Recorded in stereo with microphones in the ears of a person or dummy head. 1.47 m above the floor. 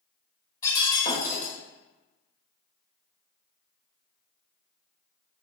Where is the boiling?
No boiling in this recording.